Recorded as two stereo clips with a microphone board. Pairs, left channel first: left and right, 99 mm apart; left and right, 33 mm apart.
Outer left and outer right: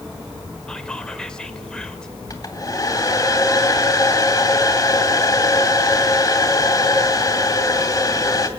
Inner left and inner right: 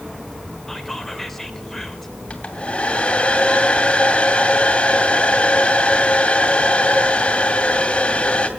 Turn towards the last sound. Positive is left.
turn(degrees=35)  # may be behind; listen again after turning